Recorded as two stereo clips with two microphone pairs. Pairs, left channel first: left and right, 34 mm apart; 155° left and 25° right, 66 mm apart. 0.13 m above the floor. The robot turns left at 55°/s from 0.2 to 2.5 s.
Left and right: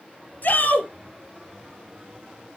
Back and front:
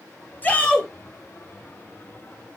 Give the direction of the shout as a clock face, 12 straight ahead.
9 o'clock.